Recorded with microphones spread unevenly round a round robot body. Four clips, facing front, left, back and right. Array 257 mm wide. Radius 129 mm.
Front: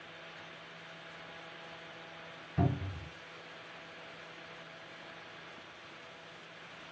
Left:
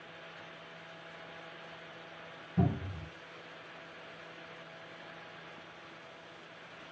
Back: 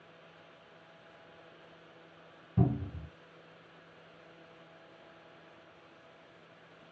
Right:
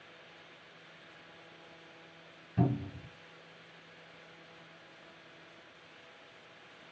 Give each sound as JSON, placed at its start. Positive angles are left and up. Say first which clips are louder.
{"t": 2.6, "sound": "a cupboard door", "louder": "right 1 dB, back 2 dB", "azimuth_deg": 170, "distance_m": 1.6}